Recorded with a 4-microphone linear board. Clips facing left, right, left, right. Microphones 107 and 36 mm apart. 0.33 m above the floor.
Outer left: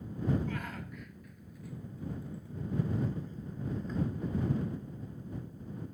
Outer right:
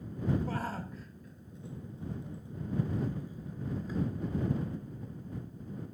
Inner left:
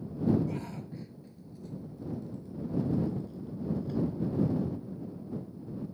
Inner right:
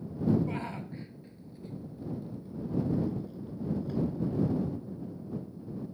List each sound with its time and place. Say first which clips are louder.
0.5 s a shout: outer right 3 dB, inner right 2 dB; 35° right (ahead or behind); by 4.0 s 5° right (ahead or behind)